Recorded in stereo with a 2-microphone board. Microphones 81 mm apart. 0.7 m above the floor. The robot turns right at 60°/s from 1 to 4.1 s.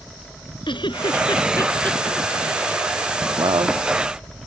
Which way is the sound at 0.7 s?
75° left (ahead or behind).